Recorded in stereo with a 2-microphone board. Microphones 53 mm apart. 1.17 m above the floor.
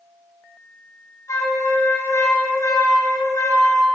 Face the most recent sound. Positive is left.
turn(degrees=90)